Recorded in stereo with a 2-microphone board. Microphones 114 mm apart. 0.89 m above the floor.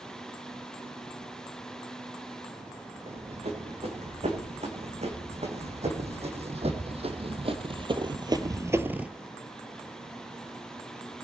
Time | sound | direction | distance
3.1 | running footsteps | 75° right (ahead or behind) | 4 m